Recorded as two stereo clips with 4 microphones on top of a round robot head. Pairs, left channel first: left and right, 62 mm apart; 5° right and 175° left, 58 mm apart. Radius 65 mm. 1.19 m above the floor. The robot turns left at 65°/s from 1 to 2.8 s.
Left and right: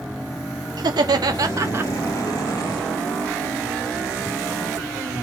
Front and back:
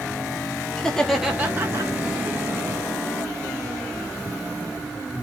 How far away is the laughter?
About 2.5 m.